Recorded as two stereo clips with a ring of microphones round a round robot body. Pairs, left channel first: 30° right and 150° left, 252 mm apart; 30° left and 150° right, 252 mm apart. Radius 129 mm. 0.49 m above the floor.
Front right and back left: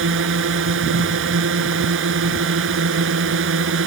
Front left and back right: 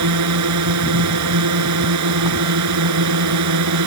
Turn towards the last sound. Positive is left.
turn(degrees=-170)